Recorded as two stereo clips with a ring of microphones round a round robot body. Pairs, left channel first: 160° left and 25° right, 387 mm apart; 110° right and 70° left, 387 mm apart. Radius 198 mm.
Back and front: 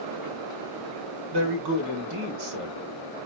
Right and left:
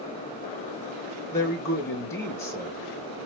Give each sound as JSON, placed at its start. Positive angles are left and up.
{"t": 1.3, "sound": "a man speaking", "azimuth_deg": -30, "distance_m": 1.4}